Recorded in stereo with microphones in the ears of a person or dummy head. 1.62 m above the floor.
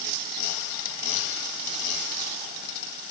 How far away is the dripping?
I don't hear dripping.